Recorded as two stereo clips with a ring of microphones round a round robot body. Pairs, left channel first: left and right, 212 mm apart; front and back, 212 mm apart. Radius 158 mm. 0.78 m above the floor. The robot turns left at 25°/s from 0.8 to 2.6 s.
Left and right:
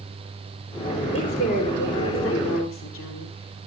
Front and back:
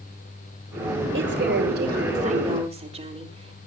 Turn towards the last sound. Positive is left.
turn(degrees=120)